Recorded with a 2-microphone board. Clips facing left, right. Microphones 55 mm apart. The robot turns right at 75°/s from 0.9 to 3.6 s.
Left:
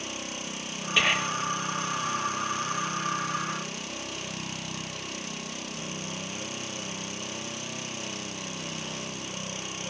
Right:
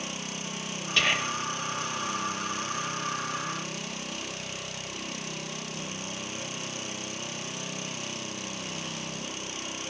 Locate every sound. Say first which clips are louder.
1.0 s whispering: left 1 dB; 165° left, 1.9 m; by 1.4 s 160° right, 1.9 m